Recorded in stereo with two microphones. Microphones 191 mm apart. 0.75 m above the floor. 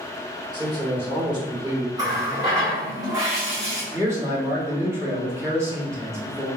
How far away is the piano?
No piano in this recording.